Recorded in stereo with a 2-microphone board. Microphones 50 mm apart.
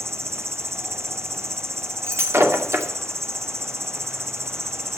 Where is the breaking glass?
60° right (ahead or behind), 2 m.